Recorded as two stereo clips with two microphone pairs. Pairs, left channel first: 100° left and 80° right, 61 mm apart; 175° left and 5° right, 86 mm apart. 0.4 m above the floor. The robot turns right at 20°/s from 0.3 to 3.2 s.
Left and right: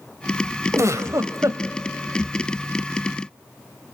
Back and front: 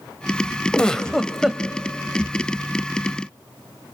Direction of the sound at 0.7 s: 110° right.